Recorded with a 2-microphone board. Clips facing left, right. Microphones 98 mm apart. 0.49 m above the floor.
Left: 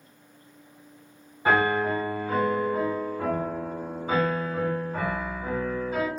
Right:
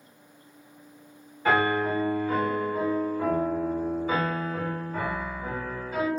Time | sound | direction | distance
1.4 | a piano | 20° left (ahead or behind) | 1.9 m